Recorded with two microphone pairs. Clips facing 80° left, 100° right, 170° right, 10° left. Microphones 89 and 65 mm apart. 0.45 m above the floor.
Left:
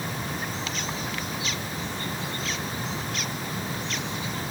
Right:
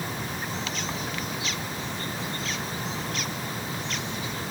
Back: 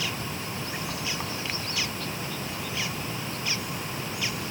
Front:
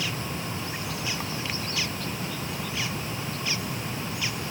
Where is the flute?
I don't hear a flute.